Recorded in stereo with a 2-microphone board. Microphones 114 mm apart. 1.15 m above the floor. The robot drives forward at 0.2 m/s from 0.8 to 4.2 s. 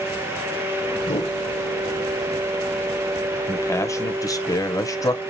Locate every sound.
1.0 s a whoosh: 45° left (ahead or behind), 1.1 m; by 1.4 s 50° left (ahead or behind), 1.1 m
3.5 s a man speaking: 20° left (ahead or behind), 0.6 m; by 5.2 s 30° left (ahead or behind), 0.5 m